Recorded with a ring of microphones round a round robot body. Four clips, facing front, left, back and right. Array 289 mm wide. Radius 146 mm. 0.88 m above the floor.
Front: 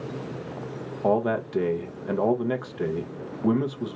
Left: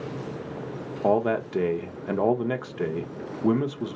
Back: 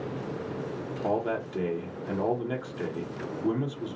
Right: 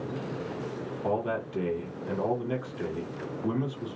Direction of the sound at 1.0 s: 55° left.